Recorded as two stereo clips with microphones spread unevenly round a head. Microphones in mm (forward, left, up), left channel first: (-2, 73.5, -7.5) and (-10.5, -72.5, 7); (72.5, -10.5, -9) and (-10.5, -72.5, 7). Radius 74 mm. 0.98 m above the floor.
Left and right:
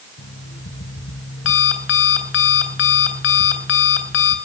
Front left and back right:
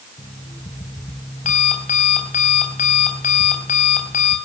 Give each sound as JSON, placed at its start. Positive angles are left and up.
{"t": 0.2, "sound": "an alarm clock", "azimuth_deg": 85, "distance_m": 3.5}